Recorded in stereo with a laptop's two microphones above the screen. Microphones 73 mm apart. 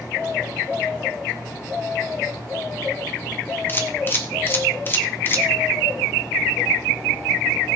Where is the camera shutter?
30° left (ahead or behind), 1.8 m.